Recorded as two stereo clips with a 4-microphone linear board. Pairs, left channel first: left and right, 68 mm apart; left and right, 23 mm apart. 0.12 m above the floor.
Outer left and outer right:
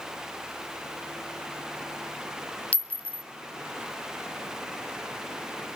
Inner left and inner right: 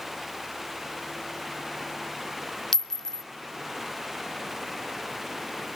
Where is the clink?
20° left (ahead or behind), 0.8 m.